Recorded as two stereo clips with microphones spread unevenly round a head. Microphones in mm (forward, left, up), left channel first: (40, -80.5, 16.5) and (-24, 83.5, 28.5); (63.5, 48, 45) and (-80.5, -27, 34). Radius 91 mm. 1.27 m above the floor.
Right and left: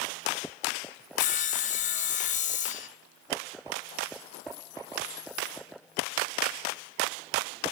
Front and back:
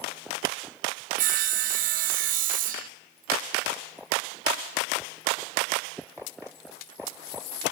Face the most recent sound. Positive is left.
turn(degrees=-115)